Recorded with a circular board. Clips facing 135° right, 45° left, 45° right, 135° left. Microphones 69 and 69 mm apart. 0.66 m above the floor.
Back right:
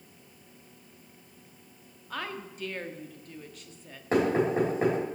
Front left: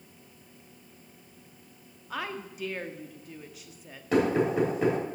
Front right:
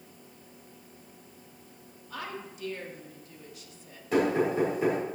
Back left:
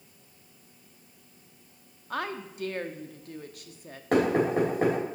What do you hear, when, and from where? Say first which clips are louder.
2.1 s a woman speaking: front left 1 dB, back left 6 dB; 125° left, 0.8 m
4.1 s knocking: even, back left 2 dB; 170° left, 3 m